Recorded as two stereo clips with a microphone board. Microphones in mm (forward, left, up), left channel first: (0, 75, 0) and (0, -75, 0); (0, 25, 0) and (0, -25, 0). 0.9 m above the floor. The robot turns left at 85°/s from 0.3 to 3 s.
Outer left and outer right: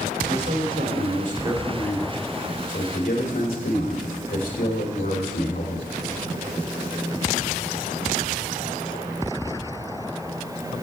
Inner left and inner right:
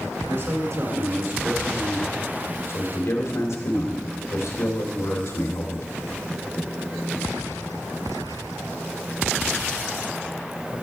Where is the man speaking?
40° right, 2.5 m; by 5.9 s 90° left, 2.5 m.